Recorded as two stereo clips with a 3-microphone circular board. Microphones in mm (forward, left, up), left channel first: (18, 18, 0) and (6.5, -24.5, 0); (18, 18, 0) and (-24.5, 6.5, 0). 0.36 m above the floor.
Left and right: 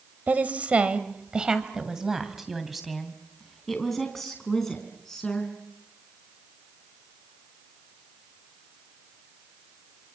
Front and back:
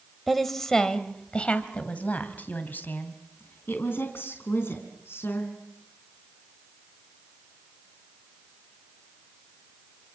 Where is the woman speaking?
75° right, 2 m; by 5.5 s 5° right, 5 m.